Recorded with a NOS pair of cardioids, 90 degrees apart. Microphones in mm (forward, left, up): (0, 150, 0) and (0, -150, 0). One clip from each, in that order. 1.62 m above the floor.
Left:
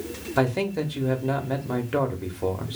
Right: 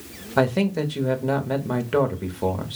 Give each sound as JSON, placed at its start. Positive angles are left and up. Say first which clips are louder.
{"t": 0.4, "sound": "a man speaking", "louder": "right 3 dB", "azimuth_deg": -15, "distance_m": 0.9}